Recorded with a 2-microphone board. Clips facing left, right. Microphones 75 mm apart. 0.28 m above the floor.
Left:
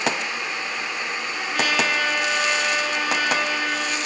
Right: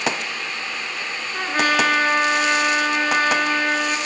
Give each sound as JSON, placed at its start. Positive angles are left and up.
{"t": 1.3, "sound": "a trumpet", "side_deg": -40, "distance_m": 3.0}